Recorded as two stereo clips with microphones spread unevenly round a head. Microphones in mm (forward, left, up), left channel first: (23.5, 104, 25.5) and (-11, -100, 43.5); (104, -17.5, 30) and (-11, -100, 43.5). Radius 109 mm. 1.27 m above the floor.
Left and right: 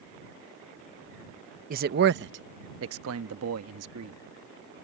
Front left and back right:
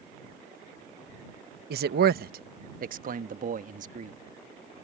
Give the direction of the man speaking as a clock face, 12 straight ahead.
5 o'clock.